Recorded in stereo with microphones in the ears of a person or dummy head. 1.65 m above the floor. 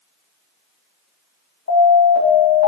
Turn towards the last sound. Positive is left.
turn(degrees=65)  # may be behind; listen again after turning